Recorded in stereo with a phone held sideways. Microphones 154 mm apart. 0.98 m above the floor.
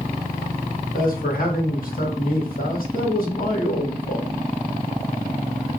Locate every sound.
0.9 s a man speaking: 70° left (ahead or behind), 1.6 m